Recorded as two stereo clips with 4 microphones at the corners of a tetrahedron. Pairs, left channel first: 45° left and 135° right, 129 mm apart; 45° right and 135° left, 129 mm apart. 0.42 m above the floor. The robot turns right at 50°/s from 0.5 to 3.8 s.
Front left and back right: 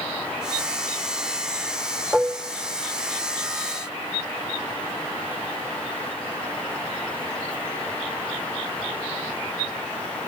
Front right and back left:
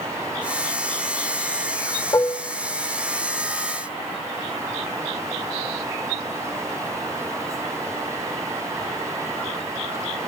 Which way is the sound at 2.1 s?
60° right.